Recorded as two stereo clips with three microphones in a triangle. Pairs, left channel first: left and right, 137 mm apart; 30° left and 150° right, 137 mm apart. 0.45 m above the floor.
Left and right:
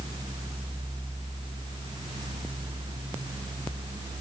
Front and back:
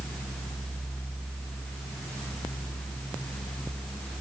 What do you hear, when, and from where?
Only background noise.